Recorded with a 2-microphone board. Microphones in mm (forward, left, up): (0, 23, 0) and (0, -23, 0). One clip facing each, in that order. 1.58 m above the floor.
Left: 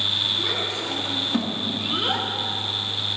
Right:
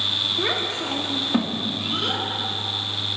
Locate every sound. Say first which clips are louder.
0.4 s a child speaking: right 2 dB; 50° right (ahead or behind), 1.7 m; by 2.3 s 30° left (ahead or behind), 1.3 m